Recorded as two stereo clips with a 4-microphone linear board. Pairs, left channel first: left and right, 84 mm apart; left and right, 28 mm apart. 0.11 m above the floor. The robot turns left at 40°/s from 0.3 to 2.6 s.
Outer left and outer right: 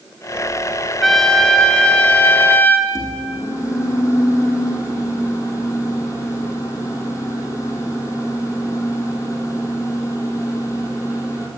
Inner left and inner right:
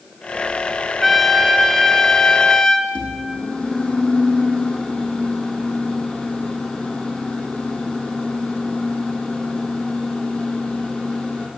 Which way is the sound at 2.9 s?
35° left (ahead or behind).